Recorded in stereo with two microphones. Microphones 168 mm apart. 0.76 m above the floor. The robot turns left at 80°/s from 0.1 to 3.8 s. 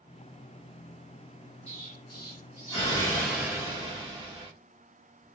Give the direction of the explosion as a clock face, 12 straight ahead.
8 o'clock.